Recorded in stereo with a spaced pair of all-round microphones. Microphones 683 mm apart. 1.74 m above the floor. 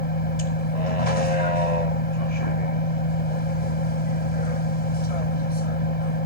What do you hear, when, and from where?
0.0 s a vehicle: 60° left (ahead or behind)